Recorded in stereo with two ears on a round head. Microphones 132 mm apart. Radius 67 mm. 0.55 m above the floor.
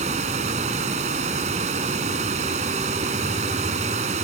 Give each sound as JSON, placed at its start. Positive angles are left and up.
{"t": 0.0, "sound": "running water", "side_deg": -45}